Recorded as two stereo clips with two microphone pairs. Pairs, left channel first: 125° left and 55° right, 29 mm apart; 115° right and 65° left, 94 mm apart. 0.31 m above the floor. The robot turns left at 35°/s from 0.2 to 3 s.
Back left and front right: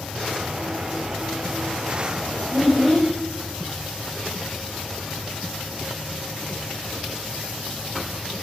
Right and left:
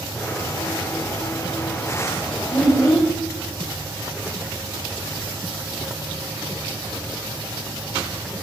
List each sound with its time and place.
2.5 s a child speaking: 145° right, 1.5 m; by 3.1 s 160° right, 1.5 m